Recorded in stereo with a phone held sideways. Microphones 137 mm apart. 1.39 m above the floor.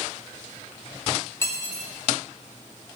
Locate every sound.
1.4 s cutlery clinking: 20° left (ahead or behind), 2.0 m